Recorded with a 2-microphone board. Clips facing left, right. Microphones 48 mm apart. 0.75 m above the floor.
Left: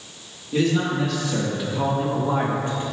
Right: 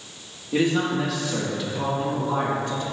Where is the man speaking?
20° right (ahead or behind), 1.3 m; by 2.8 s 30° left (ahead or behind), 1.9 m.